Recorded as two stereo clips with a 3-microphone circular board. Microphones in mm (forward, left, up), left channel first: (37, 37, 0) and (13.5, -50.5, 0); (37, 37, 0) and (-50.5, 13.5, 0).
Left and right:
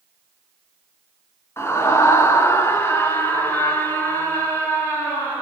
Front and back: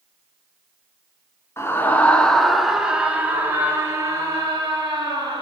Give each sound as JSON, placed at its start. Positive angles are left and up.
{"t": 1.6, "sound": "a scream", "azimuth_deg": 45, "distance_m": 1.5}